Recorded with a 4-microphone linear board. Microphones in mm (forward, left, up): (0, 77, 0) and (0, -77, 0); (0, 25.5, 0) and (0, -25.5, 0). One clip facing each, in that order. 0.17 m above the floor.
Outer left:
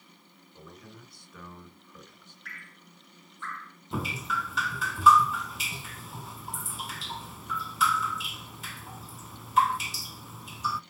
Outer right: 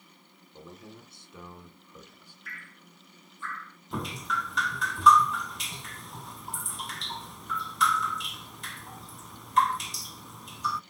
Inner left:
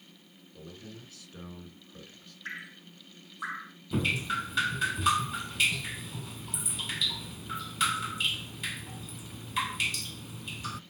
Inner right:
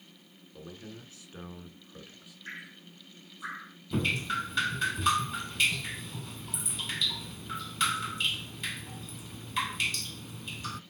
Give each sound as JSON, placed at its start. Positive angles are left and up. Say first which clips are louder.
{"t": 0.5, "sound": "a man speaking", "louder": "outer right 2 dB, inner right 1 dB", "side_deg": -30, "distance_m": 2.5}
{"t": 2.5, "sound": "dripping", "louder": "outer right 2 dB, inner left 3 dB", "side_deg": 65, "distance_m": 3.5}
{"t": 3.9, "sound": "dripping", "louder": "outer left 1 dB, even", "side_deg": 5, "distance_m": 0.5}